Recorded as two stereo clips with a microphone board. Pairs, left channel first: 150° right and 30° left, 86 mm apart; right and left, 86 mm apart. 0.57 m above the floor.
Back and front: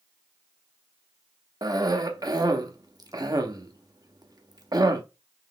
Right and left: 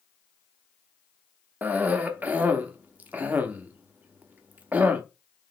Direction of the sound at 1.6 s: 25° left.